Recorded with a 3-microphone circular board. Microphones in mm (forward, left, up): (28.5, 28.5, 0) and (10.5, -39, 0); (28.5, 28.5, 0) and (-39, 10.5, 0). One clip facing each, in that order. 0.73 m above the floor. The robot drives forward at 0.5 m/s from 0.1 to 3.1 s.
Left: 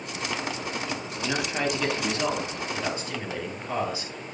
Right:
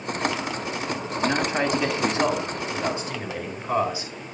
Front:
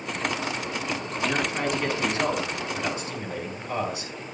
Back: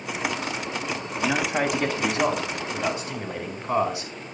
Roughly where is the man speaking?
Behind.